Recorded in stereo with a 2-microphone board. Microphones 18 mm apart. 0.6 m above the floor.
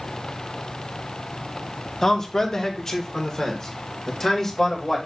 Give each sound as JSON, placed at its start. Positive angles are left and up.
{"t": 2.0, "sound": "a man speaking", "side_deg": 30, "distance_m": 0.9}